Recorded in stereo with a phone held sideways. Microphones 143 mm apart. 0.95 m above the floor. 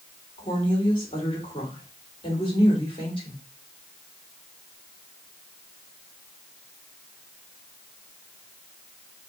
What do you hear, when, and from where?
0.4 s a woman speaking: 35° left (ahead or behind), 2 m